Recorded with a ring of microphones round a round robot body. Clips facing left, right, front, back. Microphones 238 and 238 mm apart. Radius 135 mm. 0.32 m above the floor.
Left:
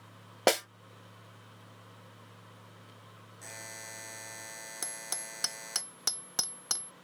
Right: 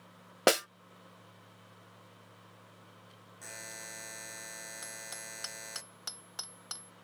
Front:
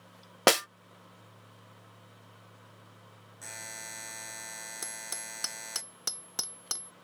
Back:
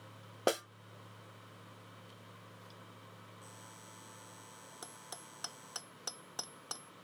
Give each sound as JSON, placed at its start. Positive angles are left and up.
{"t": 0.5, "sound": "a snare drum", "azimuth_deg": -5}
{"t": 3.4, "sound": "a buzzer", "azimuth_deg": -5}
{"t": 4.8, "sound": "hammering", "azimuth_deg": 65}